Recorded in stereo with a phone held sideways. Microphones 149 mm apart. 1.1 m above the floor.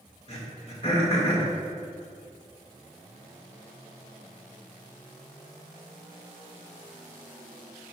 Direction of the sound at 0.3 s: 40° left (ahead or behind).